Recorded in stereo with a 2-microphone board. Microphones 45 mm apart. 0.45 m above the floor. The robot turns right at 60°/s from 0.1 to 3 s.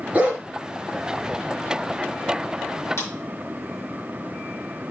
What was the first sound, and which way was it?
A dog barking, 35° right (ahead or behind).